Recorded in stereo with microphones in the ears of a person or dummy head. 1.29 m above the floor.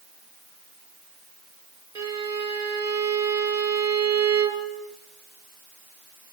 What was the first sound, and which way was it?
A violin, 20° right (ahead or behind).